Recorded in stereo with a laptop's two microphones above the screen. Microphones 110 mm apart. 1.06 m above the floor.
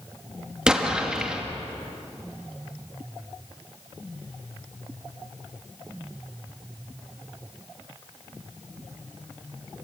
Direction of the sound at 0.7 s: 5° right (ahead or behind).